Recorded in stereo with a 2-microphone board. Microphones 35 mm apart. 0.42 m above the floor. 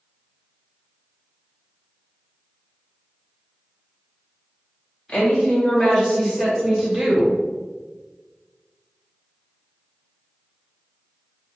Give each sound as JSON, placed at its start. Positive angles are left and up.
{"t": 5.1, "sound": "a woman speaking", "side_deg": 30, "distance_m": 1.4}